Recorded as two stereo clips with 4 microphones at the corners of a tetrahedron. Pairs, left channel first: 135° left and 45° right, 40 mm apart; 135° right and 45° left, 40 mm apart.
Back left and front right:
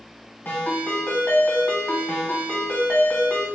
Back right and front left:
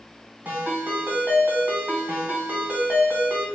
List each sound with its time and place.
0.5 s a ringtone: 85° left, 1.4 m